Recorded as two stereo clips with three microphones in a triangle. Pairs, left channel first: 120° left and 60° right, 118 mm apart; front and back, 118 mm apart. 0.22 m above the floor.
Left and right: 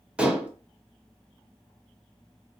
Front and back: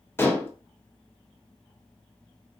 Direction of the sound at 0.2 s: Straight ahead.